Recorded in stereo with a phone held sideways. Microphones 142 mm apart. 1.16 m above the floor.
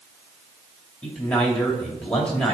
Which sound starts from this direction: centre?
A man speaking, at 1.0 s.